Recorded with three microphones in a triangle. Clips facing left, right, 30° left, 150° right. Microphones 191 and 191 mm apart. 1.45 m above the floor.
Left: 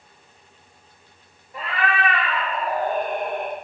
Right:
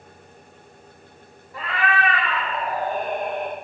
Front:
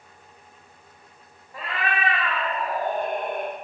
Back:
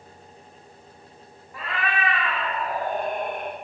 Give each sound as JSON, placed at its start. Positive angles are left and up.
{"t": 1.5, "sound": "a cat meowing", "azimuth_deg": 50, "distance_m": 0.9}